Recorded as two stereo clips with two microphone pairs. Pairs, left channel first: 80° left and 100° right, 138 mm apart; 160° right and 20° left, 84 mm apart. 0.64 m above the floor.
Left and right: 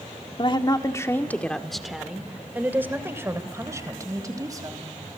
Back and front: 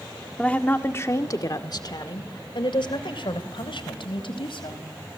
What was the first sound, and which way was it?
A woman speaking, 120° left.